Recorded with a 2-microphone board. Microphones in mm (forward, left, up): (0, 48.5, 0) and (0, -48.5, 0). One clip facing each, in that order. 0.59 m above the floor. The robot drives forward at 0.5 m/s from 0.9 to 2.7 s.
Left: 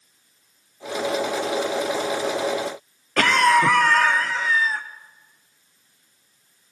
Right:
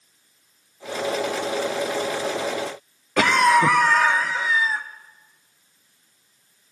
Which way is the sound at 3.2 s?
10° right (ahead or behind).